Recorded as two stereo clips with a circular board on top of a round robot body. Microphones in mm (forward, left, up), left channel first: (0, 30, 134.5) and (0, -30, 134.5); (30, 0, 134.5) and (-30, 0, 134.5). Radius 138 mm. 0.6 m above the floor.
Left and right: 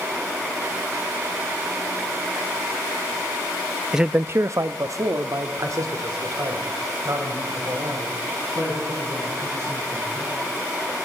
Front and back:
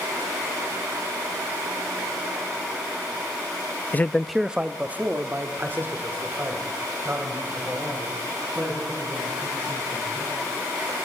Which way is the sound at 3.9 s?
10° right.